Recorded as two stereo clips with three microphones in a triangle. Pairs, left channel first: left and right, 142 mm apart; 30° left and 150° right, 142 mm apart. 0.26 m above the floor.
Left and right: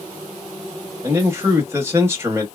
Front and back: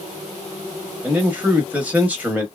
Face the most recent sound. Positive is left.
turn(degrees=-95)